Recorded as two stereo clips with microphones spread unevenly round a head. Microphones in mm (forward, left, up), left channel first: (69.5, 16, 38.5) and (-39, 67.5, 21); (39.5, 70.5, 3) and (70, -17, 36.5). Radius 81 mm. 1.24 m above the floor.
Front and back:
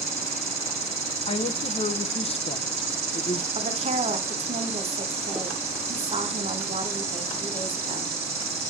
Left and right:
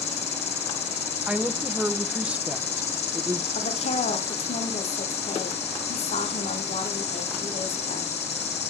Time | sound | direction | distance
0.0 | an insect | 120° left | 2.5 m
1.3 | a woman speaking | 15° left | 1.1 m
3.5 | a woman speaking | 120° left | 2 m